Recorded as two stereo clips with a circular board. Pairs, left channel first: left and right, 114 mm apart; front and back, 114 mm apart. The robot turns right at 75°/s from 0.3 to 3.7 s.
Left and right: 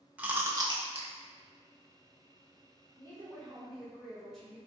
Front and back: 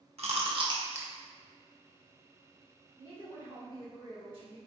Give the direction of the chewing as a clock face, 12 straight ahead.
6 o'clock.